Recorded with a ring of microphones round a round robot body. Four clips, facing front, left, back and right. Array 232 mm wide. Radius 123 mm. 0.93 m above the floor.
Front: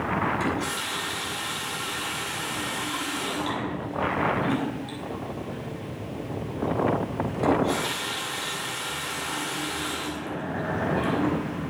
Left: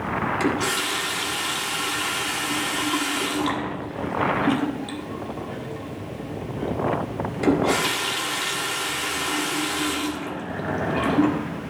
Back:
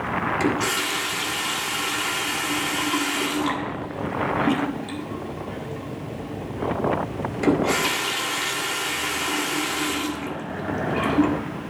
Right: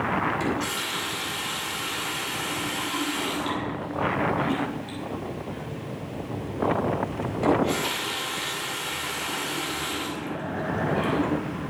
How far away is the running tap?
About 1.6 m.